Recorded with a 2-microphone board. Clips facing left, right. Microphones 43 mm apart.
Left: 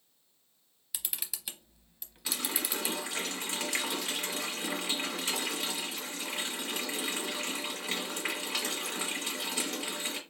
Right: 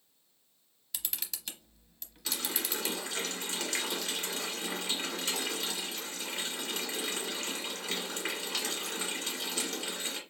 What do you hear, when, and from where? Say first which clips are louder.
0.9 s a camera shutter: even; 10° left (ahead or behind), 0.7 m
2.2 s a running tap: left 1 dB; 15° left (ahead or behind), 1.6 m